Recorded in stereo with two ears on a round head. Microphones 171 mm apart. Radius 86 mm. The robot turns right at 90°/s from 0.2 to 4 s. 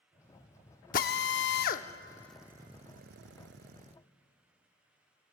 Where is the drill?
45° left (ahead or behind), 0.6 m; by 3.9 s 35° right (ahead or behind), 0.6 m.